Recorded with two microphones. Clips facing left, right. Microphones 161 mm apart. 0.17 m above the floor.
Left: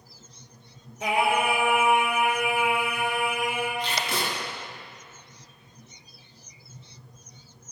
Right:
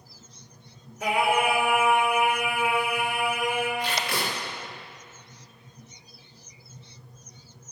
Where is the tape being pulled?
25° left (ahead or behind), 1.9 m.